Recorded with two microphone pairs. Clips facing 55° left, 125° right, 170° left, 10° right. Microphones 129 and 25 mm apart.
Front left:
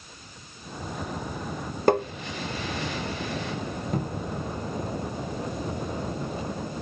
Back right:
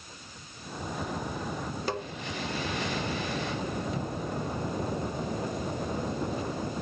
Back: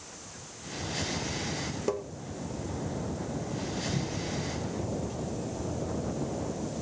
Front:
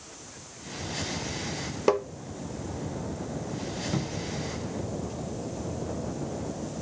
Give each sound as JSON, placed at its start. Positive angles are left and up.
{"t": 1.9, "sound": "tapping", "azimuth_deg": 30, "distance_m": 0.7}
{"t": 3.9, "sound": "a cupboard door", "azimuth_deg": 10, "distance_m": 1.0}